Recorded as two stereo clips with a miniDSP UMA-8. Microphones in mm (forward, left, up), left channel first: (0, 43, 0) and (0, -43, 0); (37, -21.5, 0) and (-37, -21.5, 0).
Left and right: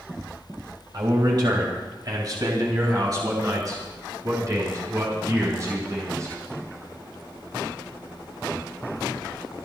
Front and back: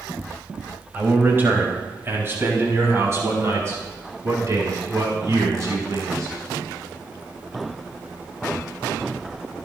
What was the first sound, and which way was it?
A man speaking, 115° right.